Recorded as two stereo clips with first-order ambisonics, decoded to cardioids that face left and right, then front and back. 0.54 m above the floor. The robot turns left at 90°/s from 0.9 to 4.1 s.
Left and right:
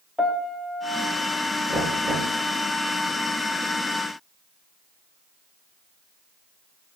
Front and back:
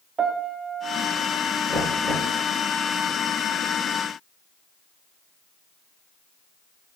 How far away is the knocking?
About 5 m.